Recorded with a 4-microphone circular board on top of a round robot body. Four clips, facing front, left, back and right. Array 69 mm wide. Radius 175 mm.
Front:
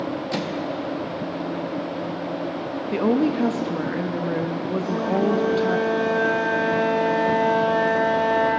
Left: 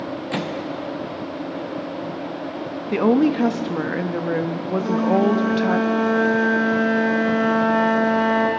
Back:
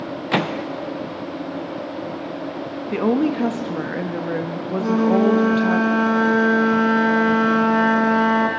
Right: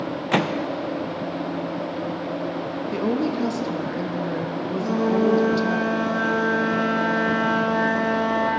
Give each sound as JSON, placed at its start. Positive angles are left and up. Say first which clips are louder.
{"t": 0.3, "sound": "a microwave", "louder": "right 6 dB, back 5 dB", "azimuth_deg": -145, "distance_m": 0.7}
{"t": 2.9, "sound": "a woman speaking", "louder": "left 7 dB, back 1 dB", "azimuth_deg": 100, "distance_m": 1.2}
{"t": 4.8, "sound": "a flute", "louder": "left 2 dB, back 7 dB", "azimuth_deg": 175, "distance_m": 3.0}